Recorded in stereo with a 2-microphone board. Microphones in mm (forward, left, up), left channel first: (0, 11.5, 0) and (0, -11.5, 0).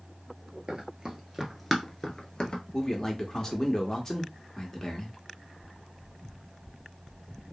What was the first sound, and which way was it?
Running footsteps, 45° right (ahead or behind).